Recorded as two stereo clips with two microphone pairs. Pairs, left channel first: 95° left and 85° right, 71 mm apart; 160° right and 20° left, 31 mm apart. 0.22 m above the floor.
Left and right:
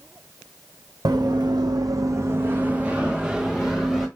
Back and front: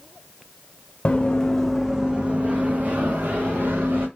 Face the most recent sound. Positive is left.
turn(degrees=5)